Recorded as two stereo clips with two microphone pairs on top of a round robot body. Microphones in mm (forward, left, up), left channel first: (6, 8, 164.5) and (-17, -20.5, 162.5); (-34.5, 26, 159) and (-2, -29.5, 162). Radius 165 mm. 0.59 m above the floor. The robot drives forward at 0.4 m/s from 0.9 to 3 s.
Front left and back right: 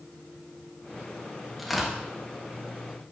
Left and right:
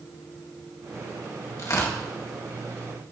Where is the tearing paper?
150° left, 2.5 m.